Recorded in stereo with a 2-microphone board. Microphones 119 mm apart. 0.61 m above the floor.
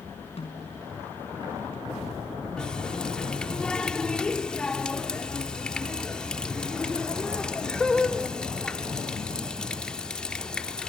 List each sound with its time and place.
0.4 s a snare drum: 55° left (ahead or behind), 4.5 m
2.6 s a running tap: 5° left (ahead or behind), 0.7 m